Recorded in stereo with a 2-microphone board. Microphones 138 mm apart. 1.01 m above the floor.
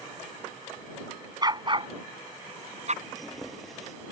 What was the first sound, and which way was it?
A dog barking, 30° right (ahead or behind).